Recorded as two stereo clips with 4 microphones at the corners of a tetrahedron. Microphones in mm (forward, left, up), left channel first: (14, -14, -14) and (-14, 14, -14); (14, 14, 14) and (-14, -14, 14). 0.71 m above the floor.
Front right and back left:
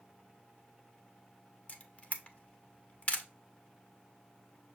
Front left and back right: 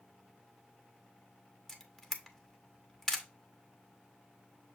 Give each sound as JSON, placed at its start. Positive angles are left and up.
{"t": 1.7, "sound": "a camera shutter", "azimuth_deg": -30, "distance_m": 0.7}